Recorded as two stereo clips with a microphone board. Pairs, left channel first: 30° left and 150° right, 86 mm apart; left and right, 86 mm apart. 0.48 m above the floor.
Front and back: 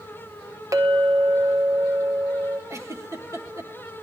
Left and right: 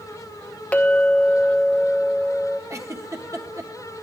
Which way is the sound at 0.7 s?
160° left.